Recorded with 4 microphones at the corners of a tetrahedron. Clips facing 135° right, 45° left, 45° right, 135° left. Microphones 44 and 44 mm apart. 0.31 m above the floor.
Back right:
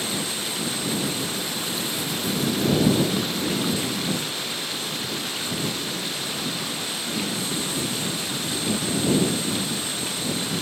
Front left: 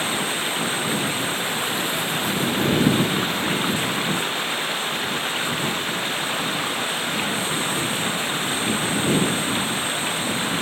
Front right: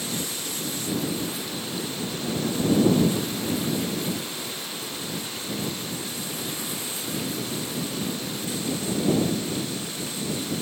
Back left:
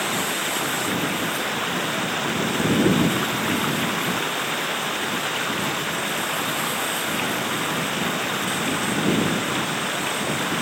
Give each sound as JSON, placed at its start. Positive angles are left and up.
{"t": 0.0, "sound": "running water", "azimuth_deg": 100}